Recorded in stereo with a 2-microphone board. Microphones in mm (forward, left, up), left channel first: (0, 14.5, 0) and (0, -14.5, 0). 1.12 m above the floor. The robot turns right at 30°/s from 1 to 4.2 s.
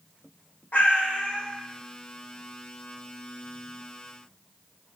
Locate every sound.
0.7 s a cat meowing: 45° left (ahead or behind), 0.7 m; by 1.5 s 35° left (ahead or behind), 0.7 m